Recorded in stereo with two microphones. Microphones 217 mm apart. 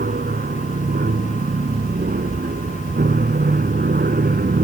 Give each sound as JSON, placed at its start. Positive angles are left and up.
{"t": 0.0, "sound": "an aircraft", "side_deg": -45}